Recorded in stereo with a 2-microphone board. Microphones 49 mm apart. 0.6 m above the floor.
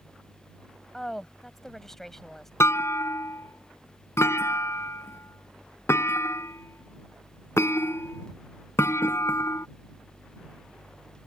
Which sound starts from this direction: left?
A clunk, at 2.6 s.